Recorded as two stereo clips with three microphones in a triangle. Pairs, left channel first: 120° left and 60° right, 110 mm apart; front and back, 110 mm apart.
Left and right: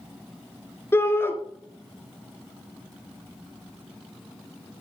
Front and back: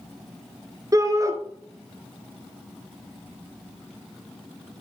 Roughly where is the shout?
Behind.